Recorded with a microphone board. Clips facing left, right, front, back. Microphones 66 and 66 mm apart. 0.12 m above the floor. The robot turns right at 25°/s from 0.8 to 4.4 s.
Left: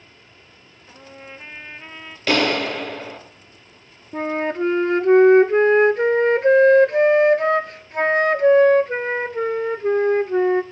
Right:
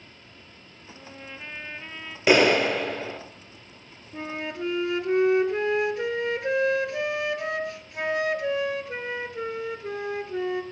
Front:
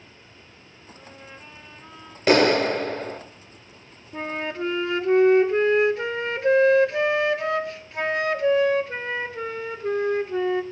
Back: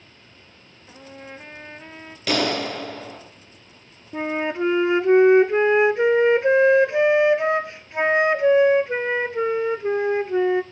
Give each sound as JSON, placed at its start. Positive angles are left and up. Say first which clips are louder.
{"t": 0.9, "sound": "a trumpet", "louder": "left 2 dB, back 5 dB", "azimuth_deg": 150, "distance_m": 0.6}
{"t": 2.3, "sound": "a clap", "louder": "right 1 dB, front 6 dB", "azimuth_deg": -30, "distance_m": 1.6}
{"t": 4.1, "sound": "a flute", "louder": "left 10 dB, back 5 dB", "azimuth_deg": 115, "distance_m": 0.5}